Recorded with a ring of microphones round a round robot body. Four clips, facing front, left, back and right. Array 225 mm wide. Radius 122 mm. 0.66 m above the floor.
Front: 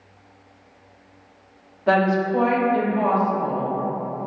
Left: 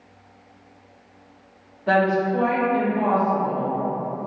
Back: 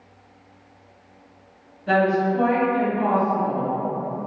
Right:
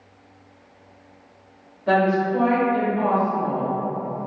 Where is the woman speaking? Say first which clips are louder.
Even, even; straight ahead, 1.0 m.